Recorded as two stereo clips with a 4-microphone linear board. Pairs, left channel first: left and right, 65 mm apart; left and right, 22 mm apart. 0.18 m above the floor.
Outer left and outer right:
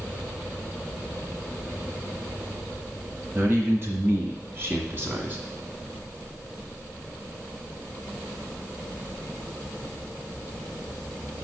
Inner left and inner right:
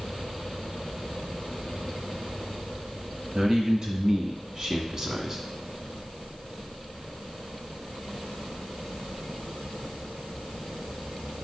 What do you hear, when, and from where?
3.4 s a man speaking: 40° right (ahead or behind), 1.8 m; by 5.4 s 30° right (ahead or behind), 1.3 m